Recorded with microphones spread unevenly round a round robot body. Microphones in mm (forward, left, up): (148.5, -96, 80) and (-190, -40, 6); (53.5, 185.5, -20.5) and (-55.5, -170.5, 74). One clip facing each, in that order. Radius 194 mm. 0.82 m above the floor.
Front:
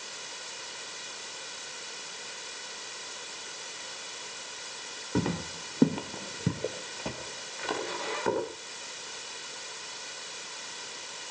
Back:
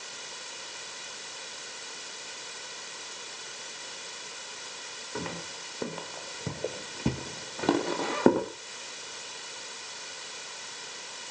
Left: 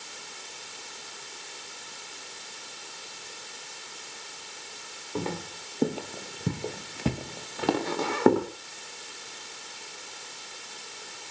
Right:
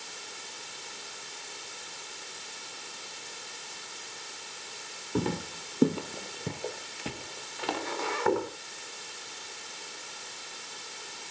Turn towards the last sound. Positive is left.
turn(degrees=125)